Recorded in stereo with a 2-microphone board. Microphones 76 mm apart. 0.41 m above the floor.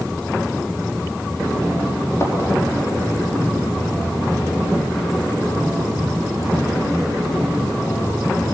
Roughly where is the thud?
Left.